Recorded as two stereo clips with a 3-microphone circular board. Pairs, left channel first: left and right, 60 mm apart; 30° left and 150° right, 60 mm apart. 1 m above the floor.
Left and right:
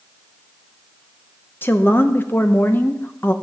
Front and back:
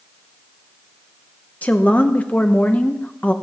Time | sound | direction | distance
1.6 | a woman speaking | 75° left | 0.8 m